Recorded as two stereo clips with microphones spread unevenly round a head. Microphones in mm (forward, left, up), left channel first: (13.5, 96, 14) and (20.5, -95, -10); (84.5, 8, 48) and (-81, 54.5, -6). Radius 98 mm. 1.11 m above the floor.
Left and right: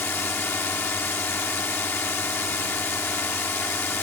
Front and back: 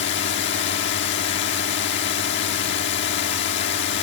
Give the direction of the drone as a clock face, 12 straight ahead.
12 o'clock.